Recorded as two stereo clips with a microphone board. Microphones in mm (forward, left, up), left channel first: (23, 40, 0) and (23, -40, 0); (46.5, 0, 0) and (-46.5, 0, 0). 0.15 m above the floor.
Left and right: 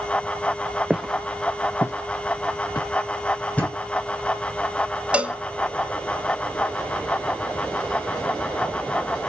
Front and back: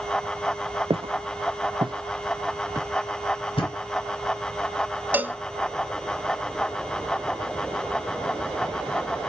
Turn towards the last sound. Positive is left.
turn(degrees=-145)